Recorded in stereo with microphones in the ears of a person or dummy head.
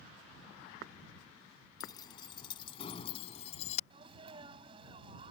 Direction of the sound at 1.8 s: 25° left (ahead or behind).